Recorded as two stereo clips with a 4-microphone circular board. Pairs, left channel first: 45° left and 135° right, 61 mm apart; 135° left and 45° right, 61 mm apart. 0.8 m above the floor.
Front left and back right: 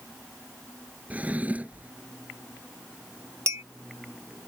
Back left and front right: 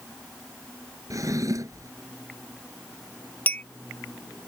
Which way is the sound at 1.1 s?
70° right.